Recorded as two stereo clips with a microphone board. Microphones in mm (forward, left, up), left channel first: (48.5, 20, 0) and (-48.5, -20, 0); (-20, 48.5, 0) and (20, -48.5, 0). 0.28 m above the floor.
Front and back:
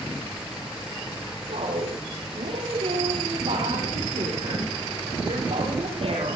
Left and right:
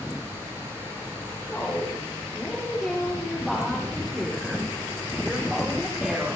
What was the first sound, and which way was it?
A woman speaking, 170° right.